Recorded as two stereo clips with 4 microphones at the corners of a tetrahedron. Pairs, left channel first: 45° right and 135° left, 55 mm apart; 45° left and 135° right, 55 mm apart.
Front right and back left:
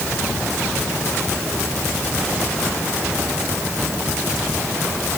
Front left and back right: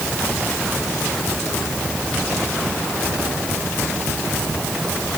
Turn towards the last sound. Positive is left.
No sound to turn to.